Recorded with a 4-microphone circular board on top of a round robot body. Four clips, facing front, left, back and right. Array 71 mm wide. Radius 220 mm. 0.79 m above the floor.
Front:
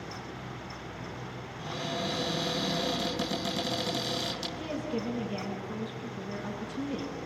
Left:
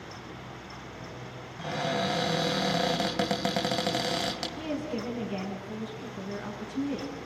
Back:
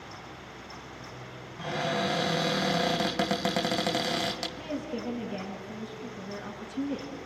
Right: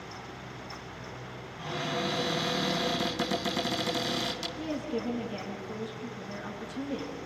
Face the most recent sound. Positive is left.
turn(degrees=95)